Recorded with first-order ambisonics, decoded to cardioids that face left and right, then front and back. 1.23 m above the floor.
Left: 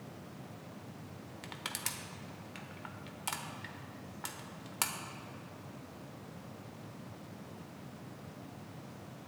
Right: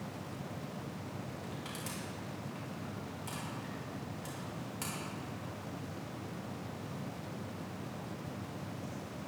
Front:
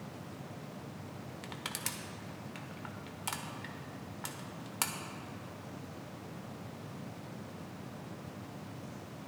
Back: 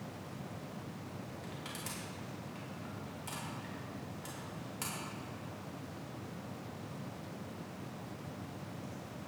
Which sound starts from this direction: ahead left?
Crushing, at 1.4 s.